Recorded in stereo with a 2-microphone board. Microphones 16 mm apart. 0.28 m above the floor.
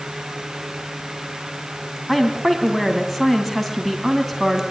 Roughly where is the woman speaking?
Centre.